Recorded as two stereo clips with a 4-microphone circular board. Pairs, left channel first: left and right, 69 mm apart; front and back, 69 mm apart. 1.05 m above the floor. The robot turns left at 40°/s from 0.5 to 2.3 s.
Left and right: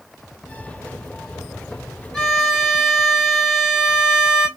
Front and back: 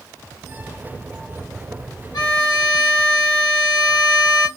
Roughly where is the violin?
Ahead.